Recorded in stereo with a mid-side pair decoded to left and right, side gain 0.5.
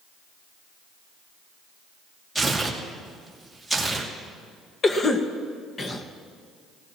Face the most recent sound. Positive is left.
turn(degrees=35)